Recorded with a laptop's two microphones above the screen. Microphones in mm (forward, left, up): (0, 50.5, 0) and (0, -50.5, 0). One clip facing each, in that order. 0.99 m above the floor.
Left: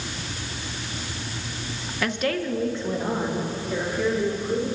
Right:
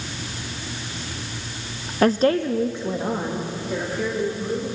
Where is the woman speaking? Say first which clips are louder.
Right 8 dB; 40° right (ahead or behind), 0.5 m; by 4.7 s 5° right (ahead or behind), 3 m.